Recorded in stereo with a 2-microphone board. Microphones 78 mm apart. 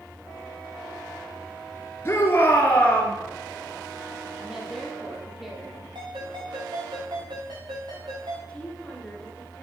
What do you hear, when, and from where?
2.0 s a shout: 30° left (ahead or behind), 2.0 m; by 3.1 s 15° left (ahead or behind), 2 m
4.4 s a woman speaking: 5° right (ahead or behind), 2.5 m
6.0 s a ringtone: 80° right, 4.5 m
8.5 s a woman speaking: 15° left (ahead or behind), 2 m